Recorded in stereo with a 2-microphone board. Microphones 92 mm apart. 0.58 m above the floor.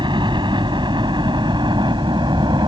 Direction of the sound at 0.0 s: 55° right (ahead or behind).